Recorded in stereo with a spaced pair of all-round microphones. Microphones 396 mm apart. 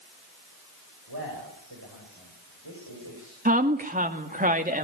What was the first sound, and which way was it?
A man speaking, 70° right (ahead or behind).